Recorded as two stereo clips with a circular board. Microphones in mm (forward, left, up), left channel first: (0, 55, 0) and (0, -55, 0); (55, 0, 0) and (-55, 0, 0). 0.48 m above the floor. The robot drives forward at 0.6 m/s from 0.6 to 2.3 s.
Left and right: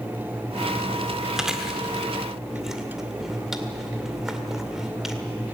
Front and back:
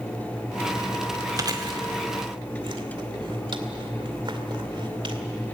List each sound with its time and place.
1.4 s chewing: 170° right, 1.6 m; by 5.2 s 175° right, 2.0 m